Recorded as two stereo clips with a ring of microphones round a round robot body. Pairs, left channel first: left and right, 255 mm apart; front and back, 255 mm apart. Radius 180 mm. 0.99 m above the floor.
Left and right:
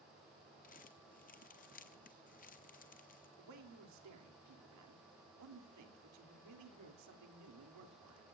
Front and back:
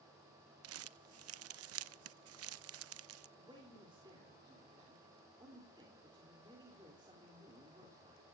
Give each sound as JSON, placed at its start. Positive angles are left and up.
{"t": 0.6, "sound": "crumpling", "azimuth_deg": 155, "distance_m": 0.6}
{"t": 3.4, "sound": "a man speaking", "azimuth_deg": -105, "distance_m": 3.0}